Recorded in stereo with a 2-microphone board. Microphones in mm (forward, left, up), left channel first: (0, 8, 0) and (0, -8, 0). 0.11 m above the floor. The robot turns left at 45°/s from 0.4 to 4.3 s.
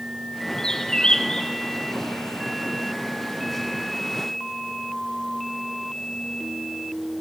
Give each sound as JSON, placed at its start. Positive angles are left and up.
{"t": 0.6, "sound": "a bird", "azimuth_deg": 125, "distance_m": 0.7}